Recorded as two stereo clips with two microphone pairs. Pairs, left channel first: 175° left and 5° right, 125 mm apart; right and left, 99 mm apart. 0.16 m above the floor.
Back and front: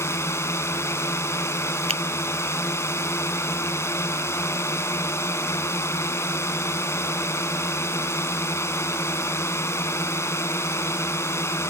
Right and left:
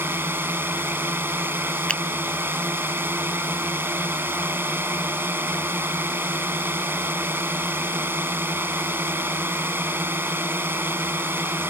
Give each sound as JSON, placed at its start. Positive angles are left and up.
{"t": 0.0, "sound": "a drone", "azimuth_deg": 135}
{"t": 1.9, "sound": "a finger snap", "azimuth_deg": -10}